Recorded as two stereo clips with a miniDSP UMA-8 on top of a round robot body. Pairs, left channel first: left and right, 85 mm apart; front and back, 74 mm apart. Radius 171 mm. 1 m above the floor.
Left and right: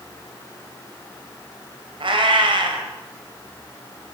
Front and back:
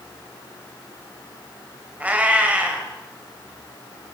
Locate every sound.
2.0 s a cat meowing: 110° right, 3.5 m